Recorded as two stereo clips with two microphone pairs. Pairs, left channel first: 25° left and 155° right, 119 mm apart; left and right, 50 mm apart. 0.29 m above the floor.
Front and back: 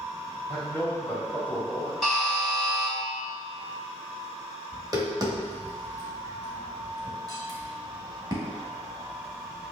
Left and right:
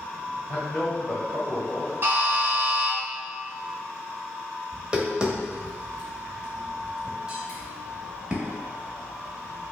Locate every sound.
0.5 s a man speaking: 55° left, 1.4 m; by 1.9 s 120° left, 1.5 m
2.0 s a buzzer: 65° right, 1.4 m
4.7 s tapping: 145° right, 1.0 m